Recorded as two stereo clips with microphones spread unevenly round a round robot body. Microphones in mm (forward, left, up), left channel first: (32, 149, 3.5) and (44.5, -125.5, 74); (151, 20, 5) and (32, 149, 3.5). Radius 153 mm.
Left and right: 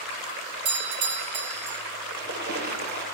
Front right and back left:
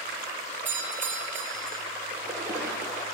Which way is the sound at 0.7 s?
145° right.